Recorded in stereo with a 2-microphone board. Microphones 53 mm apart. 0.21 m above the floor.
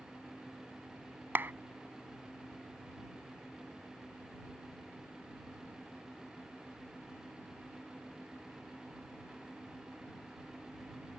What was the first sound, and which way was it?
A clap, 45° right (ahead or behind).